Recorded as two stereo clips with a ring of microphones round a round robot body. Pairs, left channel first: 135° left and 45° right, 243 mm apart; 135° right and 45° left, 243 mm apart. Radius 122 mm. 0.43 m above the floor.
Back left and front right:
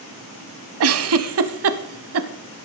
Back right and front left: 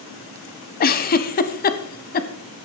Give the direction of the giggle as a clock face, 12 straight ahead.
3 o'clock.